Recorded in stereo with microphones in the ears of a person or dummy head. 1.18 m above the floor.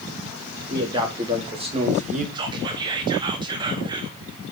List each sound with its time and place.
0.7 s a man speaking: 20° right (ahead or behind), 3 m; by 2.2 s 40° right (ahead or behind), 1.2 m
2.4 s whispering: 25° right (ahead or behind), 0.6 m